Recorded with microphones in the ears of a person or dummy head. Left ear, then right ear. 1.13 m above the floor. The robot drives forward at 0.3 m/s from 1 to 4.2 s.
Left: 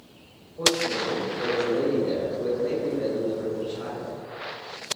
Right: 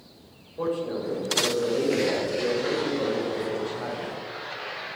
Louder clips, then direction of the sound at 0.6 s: Left 5 dB; 40° right (ahead or behind).